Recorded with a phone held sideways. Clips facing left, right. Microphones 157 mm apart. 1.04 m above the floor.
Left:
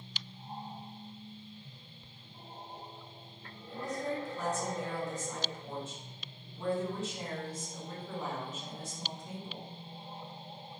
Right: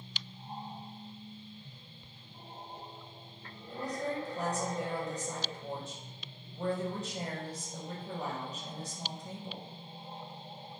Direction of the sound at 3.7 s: 40° right (ahead or behind).